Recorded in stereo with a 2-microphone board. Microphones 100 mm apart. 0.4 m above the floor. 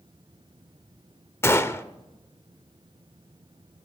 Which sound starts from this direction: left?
A gunshot, at 1.4 s.